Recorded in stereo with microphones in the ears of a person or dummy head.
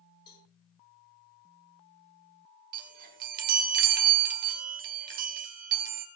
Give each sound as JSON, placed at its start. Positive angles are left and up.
{"t": 0.3, "sound": "a cowbell", "side_deg": 25, "distance_m": 6.5}
{"t": 2.7, "sound": "a chime", "side_deg": -45, "distance_m": 2.0}